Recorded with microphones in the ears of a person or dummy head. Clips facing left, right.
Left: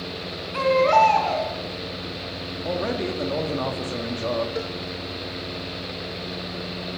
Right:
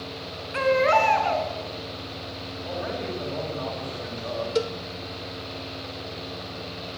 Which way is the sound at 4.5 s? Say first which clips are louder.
Right 4 dB; 45° right (ahead or behind).